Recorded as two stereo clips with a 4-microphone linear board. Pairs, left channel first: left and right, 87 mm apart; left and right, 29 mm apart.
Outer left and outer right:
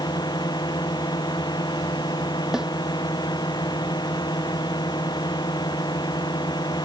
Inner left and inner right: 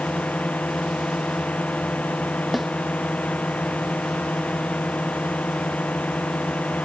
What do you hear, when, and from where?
0.0 s a drone: 55° left (ahead or behind)
2.5 s a snare drum: 5° right (ahead or behind)